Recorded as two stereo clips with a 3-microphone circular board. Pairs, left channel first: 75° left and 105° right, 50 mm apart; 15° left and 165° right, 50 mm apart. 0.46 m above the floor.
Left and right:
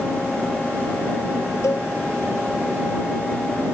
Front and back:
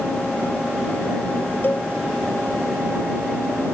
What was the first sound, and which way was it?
A cowbell, 65° left.